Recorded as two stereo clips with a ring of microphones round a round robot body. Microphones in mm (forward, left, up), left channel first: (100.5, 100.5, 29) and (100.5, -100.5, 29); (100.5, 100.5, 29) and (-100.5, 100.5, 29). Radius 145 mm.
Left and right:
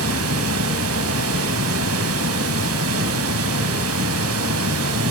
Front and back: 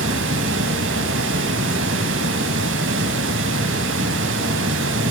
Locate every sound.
0.0 s running water: 130° right, 1.5 m